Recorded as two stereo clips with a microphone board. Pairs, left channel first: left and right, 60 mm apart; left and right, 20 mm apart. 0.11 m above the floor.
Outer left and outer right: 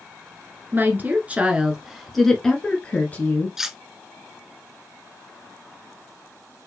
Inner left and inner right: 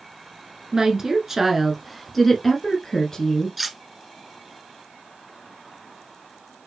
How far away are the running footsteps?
No running footsteps in this recording.